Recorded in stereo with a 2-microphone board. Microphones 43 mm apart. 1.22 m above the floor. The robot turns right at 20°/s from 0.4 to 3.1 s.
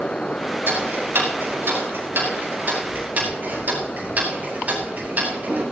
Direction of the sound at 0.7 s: 85° right.